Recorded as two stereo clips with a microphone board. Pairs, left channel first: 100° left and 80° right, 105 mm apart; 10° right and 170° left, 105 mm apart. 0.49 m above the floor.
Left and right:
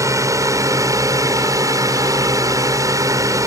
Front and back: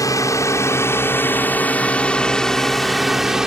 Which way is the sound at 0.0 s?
45° right.